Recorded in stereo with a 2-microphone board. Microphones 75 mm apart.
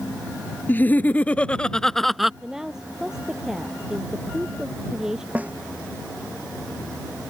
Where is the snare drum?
20° right (ahead or behind).